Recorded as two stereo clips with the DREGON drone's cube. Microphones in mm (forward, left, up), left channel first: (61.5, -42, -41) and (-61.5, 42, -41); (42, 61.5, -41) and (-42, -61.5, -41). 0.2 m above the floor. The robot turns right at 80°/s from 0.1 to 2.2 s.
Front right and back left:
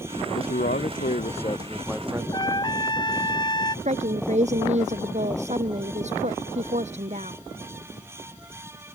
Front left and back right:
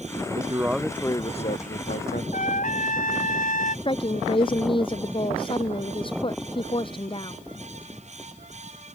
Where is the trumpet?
25° left.